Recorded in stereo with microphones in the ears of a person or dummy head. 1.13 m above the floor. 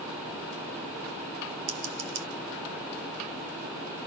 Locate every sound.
1.7 s scissors: 80° right, 3 m